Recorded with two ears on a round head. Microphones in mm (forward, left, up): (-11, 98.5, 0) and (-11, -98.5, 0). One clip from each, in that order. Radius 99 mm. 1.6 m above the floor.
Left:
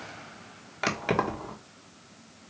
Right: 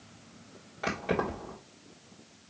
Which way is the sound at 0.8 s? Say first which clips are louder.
Left 4 dB; 55° left (ahead or behind).